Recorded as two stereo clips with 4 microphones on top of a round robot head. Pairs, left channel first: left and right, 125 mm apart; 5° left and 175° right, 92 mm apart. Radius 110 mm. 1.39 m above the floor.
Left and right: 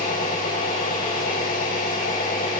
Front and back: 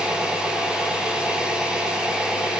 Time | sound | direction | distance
0.0 | an engine running | 105° left | 7.5 m